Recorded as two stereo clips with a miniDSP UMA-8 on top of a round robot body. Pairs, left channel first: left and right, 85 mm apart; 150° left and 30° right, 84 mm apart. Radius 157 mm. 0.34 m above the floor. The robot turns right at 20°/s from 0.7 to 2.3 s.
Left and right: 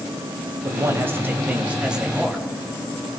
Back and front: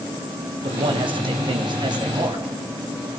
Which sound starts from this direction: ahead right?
A man speaking, at 0.6 s.